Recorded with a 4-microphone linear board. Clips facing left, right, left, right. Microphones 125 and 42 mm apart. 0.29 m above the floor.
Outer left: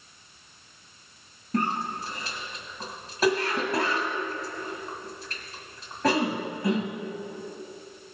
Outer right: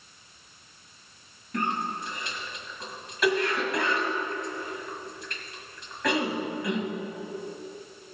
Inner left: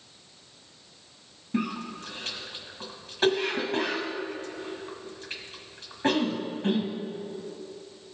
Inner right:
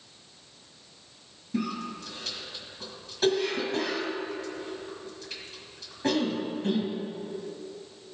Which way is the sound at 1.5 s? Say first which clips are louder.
Outer left 2 dB, inner left 1 dB; 35° left (ahead or behind).